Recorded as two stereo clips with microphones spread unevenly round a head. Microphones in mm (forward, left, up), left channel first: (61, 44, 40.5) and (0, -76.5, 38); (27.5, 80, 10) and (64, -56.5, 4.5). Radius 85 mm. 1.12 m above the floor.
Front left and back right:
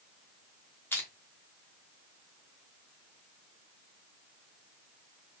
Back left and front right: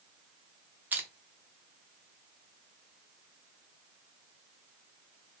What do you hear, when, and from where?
0.9 s crushing: straight ahead, 1.0 m